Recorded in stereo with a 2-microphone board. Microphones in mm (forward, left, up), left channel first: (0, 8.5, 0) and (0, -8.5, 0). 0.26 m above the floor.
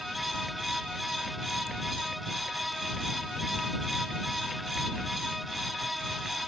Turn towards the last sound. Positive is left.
No sound to turn to.